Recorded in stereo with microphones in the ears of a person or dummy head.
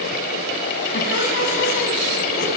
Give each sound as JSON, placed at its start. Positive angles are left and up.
{"t": 0.9, "sound": "laughter", "side_deg": 65, "distance_m": 8.5}